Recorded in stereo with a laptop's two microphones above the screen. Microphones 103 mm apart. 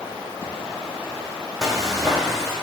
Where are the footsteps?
5° right (ahead or behind), 1.9 m.